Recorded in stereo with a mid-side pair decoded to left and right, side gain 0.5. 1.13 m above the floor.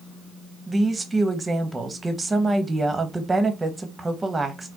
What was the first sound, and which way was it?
A woman speaking, 20° right.